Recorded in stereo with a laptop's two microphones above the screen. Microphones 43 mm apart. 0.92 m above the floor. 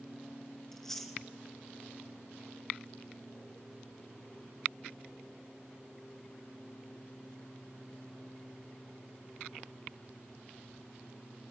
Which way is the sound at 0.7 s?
10° left (ahead or behind).